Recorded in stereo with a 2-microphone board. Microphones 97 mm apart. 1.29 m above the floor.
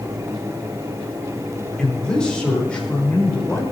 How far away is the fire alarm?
No fire alarm in this recording.